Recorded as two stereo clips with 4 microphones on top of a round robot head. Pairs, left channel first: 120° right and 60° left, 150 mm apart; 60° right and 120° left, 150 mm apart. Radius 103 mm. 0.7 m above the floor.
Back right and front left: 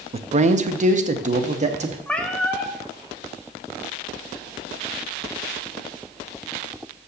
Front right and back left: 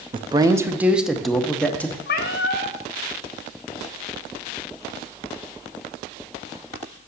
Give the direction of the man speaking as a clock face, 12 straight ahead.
9 o'clock.